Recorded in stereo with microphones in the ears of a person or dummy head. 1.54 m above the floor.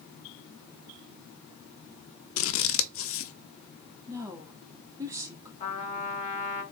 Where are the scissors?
60° left (ahead or behind), 0.6 m.